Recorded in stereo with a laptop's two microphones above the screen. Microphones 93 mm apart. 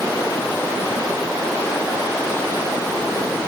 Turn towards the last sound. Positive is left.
No sound to turn to.